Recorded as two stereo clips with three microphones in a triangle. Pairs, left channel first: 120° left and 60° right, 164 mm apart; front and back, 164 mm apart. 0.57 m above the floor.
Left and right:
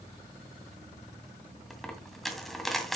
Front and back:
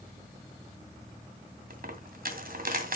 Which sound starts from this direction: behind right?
A dropped coin, at 1.7 s.